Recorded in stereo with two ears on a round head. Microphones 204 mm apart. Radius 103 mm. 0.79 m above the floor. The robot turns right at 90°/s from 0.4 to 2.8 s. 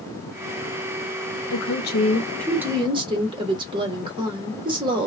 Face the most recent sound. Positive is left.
turn(degrees=-155)